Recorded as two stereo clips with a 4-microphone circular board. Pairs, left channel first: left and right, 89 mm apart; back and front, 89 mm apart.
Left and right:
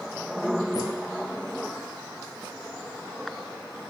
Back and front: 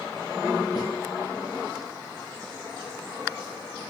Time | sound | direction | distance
0.8 | a snare drum | 140° left | 7.5 m